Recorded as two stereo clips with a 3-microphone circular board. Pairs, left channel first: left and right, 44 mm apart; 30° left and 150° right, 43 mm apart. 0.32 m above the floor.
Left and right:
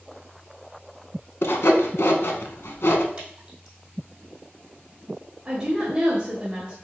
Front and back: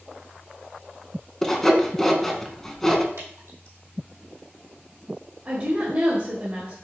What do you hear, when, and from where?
1.4 s sawing: 110° left, 0.6 m
3.2 s dripping: 155° right, 3 m
5.5 s a woman speaking: 140° right, 1.2 m